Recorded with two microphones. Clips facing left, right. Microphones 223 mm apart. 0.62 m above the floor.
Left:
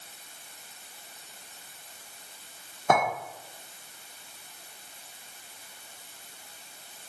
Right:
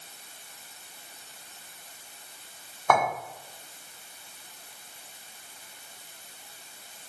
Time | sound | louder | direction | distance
2.9 | a clink | even | 20° left (ahead or behind) | 1.2 m